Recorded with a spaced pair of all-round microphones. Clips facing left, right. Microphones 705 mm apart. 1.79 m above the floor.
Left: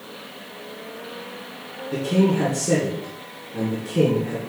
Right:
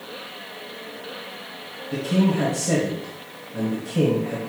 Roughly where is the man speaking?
Centre.